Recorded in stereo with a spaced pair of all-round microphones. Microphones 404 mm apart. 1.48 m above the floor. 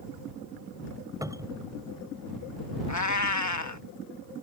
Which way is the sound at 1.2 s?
10° right (ahead or behind).